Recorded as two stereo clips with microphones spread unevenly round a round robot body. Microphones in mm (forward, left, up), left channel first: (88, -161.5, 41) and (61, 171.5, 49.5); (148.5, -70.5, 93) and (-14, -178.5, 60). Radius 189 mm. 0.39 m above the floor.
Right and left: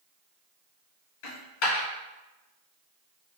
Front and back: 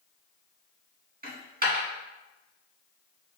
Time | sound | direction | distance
1.2 | a dropped coin | 100° right | 1.4 m